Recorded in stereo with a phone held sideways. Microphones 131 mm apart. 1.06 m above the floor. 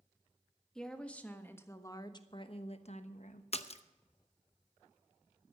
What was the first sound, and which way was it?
A woman speaking, 5° left (ahead or behind).